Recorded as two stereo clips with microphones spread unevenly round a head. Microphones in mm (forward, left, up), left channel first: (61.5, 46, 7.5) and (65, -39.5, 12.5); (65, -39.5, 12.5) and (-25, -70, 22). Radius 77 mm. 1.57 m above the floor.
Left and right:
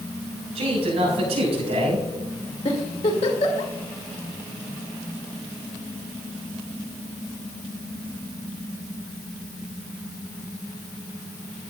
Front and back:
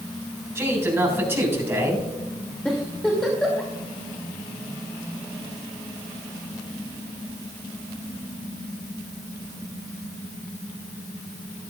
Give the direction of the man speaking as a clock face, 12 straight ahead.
3 o'clock.